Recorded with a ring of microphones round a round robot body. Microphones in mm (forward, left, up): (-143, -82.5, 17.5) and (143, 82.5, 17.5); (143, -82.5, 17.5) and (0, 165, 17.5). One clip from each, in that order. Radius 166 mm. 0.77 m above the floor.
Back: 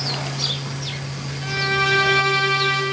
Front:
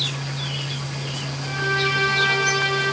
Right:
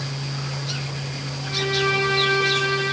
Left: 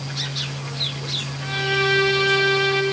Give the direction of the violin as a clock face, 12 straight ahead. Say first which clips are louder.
Back 2 dB, even; 7 o'clock.